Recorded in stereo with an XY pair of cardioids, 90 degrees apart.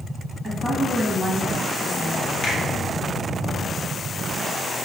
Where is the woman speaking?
25° right, 1.0 m.